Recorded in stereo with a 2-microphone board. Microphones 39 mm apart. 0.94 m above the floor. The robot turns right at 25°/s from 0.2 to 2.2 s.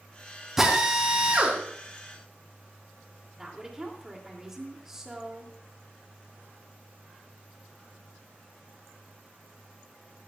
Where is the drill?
10° right (ahead or behind), 3.5 m; by 1.6 s 35° right (ahead or behind), 3.5 m.